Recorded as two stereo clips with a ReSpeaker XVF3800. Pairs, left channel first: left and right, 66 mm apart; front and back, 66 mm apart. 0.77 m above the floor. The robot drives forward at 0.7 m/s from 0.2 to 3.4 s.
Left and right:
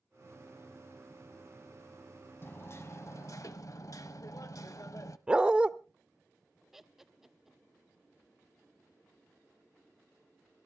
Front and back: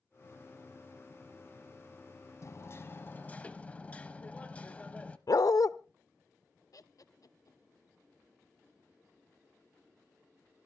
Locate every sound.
2.4 s hammering: 40° left, 1.4 m; by 5.2 s 65° left, 1.0 m
5.3 s a dog barking: 15° right, 0.7 m
6.7 s laughter: 5° right, 1.1 m